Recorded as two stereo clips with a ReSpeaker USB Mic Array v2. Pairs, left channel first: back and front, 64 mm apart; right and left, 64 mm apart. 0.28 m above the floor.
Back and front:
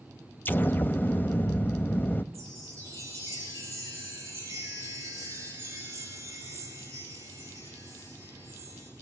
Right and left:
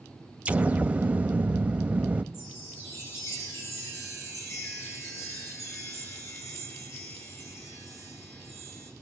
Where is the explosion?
145° left, 0.6 m.